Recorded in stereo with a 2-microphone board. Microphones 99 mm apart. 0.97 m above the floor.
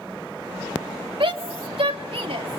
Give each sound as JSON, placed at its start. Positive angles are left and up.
{"t": 1.2, "sound": "a shout", "side_deg": -60, "distance_m": 2.0}